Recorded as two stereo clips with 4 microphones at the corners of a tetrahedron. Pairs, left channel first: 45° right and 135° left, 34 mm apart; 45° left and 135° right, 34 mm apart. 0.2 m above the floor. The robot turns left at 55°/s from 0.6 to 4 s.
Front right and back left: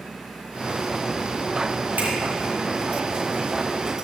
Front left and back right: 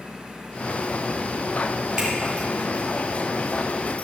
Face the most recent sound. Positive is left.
turn(degrees=50)